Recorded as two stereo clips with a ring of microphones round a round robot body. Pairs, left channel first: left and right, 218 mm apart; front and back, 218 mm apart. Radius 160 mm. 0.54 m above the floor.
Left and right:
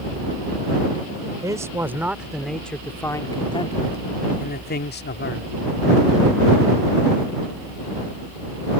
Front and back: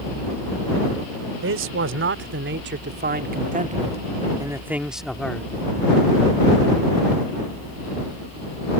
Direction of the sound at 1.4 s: 165° right.